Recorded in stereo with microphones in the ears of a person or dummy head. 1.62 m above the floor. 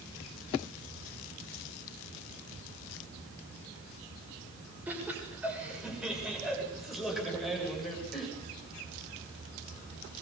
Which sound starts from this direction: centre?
Laughter, at 4.9 s.